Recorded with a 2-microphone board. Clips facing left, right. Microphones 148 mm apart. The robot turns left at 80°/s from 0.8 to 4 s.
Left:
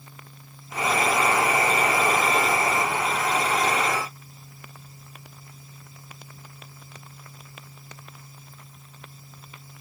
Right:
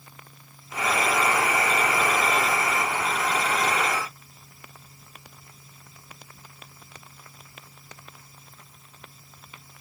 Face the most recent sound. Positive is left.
No sound to turn to.